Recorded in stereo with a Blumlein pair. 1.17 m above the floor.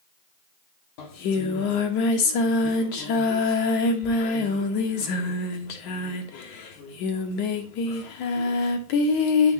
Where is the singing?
45° left, 0.9 m.